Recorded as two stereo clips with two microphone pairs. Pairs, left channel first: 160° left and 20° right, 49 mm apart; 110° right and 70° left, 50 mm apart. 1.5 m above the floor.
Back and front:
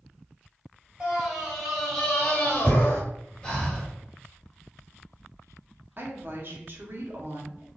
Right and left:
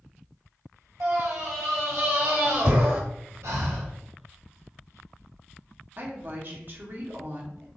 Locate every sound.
1.0 s a scream: 60° left, 1.5 m; by 3.0 s 110° left, 1.4 m
3.4 s breathing: 90° left, 0.8 m
6.0 s a woman speaking: 25° left, 0.9 m